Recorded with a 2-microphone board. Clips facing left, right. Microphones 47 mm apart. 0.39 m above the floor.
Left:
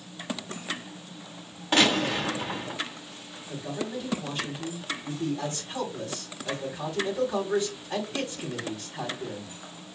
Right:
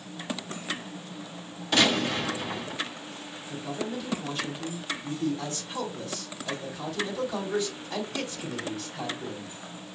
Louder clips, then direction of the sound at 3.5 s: Even; 30° left (ahead or behind).